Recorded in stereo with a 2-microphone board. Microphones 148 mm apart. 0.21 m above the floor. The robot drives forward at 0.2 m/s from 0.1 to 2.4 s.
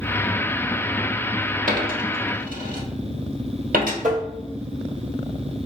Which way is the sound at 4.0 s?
60° right (ahead or behind).